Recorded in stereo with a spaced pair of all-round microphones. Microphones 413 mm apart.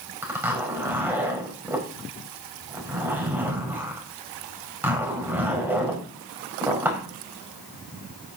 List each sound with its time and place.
0.2 s a zipper: 5° right (ahead or behind), 5 m